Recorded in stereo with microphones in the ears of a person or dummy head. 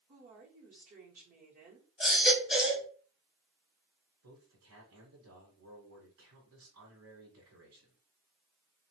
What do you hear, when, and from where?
0.1 s a woman speaking: 45° right (ahead or behind), 1.1 m
2.0 s a baby crying: centre (ahead or behind), 0.9 m
4.2 s a man speaking: 75° right (ahead or behind), 1.3 m